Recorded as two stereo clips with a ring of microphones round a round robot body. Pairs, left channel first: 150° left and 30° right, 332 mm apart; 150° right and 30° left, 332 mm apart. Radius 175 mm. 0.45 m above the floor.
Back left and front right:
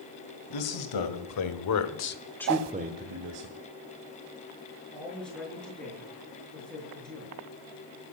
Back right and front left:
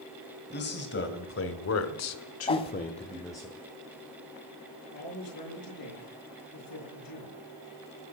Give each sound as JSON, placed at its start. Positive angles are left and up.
{"t": 0.5, "sound": "a man speaking", "azimuth_deg": 150, "distance_m": 3.0}
{"t": 2.5, "sound": "a whoosh", "azimuth_deg": -75, "distance_m": 0.7}
{"t": 4.9, "sound": "a man speaking", "azimuth_deg": -125, "distance_m": 6.5}